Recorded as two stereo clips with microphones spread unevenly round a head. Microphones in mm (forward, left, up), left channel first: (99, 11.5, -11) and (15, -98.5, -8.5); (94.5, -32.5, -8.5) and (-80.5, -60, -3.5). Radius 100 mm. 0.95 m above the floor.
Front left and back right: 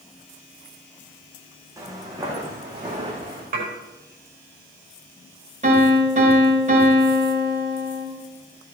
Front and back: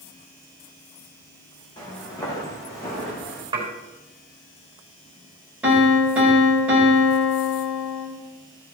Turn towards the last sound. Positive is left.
turn(degrees=-90)